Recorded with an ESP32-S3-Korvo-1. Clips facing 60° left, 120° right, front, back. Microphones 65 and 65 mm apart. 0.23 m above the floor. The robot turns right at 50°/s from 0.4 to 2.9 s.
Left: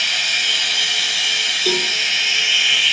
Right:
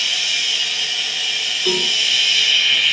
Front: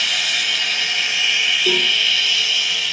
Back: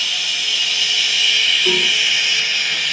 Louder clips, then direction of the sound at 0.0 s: Left 2 dB, front 2 dB; 20° left.